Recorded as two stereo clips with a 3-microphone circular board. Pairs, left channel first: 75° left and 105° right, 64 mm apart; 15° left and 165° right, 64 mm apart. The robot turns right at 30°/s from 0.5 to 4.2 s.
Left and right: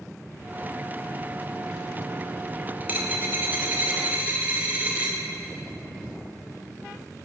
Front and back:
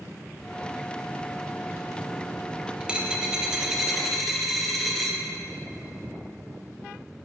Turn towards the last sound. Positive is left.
turn(degrees=-70)